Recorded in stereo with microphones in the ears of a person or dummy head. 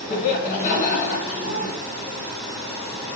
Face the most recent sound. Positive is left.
turn(degrees=50)  # may be behind; listen again after turning